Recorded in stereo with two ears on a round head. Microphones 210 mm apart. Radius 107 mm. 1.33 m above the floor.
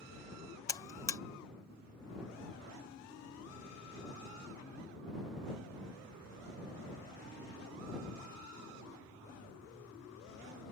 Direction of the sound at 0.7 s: 15° left (ahead or behind).